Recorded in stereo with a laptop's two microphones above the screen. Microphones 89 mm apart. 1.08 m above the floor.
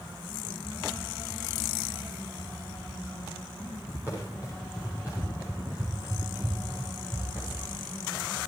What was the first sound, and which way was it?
Running footsteps, 20° right (ahead or behind).